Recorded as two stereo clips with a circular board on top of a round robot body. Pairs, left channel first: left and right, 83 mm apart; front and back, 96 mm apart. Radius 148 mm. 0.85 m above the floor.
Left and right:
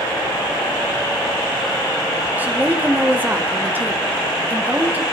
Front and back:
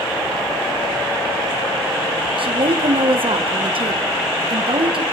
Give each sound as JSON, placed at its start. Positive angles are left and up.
{"t": 2.4, "sound": "a woman speaking", "azimuth_deg": -160, "distance_m": 2.5}